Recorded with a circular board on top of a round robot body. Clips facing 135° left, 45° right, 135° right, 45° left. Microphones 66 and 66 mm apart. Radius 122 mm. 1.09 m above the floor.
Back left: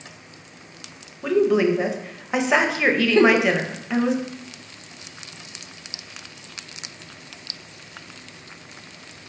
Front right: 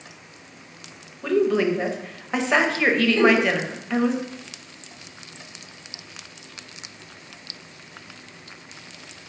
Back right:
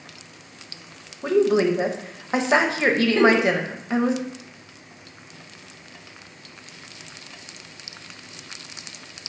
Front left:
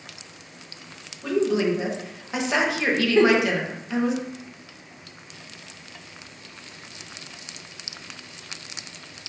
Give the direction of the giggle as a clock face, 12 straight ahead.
7 o'clock.